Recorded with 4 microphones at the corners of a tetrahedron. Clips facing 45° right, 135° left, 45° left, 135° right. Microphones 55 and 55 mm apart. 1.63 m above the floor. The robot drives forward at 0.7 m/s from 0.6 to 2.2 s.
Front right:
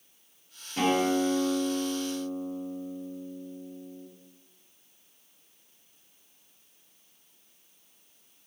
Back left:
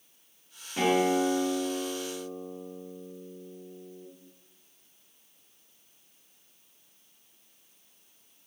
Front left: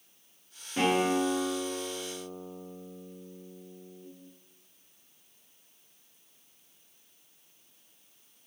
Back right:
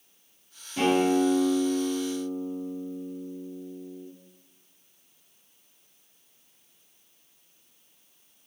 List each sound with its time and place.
0.8 s a guitar: 65° left, 1.7 m; by 4.1 s 115° left, 1.7 m